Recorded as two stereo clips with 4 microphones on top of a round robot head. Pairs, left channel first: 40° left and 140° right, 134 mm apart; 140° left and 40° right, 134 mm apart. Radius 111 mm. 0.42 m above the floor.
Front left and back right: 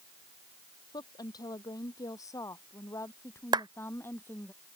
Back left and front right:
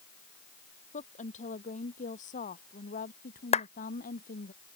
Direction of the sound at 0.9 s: 105° left.